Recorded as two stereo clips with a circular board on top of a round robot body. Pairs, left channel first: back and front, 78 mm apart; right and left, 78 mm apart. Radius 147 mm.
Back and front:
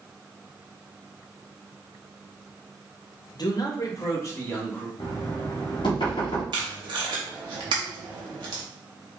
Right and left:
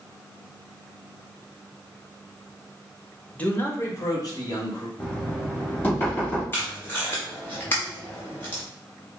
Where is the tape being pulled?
25° right, 0.6 m.